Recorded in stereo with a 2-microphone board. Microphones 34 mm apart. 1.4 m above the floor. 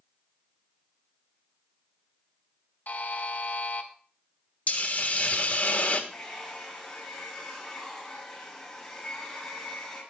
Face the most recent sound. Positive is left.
turn(degrees=20)  # may be behind; listen again after turning